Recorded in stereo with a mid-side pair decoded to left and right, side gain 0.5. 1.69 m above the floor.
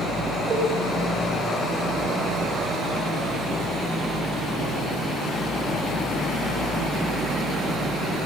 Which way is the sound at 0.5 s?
50° right.